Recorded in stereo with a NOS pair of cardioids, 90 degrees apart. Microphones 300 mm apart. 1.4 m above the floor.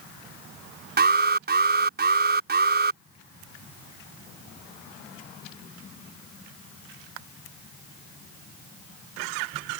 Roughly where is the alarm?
Ahead right.